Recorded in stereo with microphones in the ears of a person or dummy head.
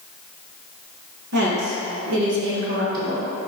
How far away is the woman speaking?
About 1.8 m.